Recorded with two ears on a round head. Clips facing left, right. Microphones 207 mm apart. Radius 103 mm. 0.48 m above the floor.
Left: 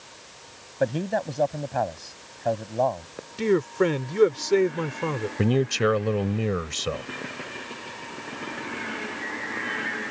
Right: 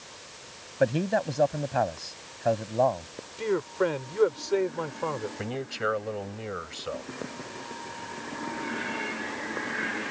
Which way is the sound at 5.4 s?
70° left (ahead or behind).